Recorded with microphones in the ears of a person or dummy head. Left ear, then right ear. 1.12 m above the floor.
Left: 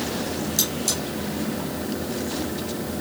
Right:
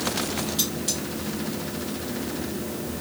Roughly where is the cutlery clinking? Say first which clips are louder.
Left 5 dB; left.